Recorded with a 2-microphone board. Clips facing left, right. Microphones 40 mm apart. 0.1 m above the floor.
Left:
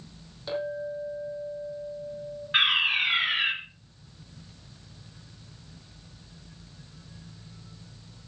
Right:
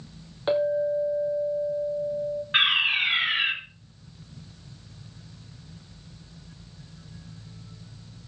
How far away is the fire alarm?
About 2.5 m.